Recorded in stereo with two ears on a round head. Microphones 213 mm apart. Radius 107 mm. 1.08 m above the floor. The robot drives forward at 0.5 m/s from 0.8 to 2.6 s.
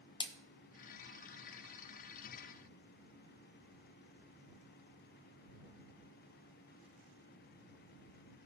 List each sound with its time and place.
0.2 s a splash: 20° left (ahead or behind), 0.7 m